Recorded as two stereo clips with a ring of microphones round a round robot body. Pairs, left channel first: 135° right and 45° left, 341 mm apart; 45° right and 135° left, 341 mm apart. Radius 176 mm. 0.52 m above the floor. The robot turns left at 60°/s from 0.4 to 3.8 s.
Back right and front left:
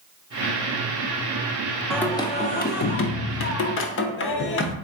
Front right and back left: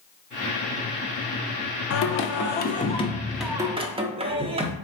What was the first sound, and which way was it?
Singing, 45° right.